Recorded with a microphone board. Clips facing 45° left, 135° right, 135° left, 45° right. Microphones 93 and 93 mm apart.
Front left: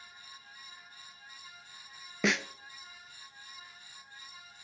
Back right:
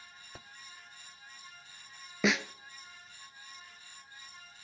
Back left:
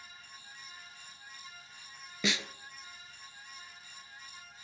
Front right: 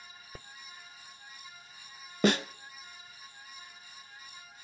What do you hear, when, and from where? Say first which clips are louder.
2.2 s a snare drum: back right 1 dB, front right 9 dB; 45° right, 0.6 m